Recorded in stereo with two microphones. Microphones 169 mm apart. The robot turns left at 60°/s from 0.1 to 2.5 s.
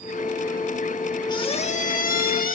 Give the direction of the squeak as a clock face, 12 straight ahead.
7 o'clock.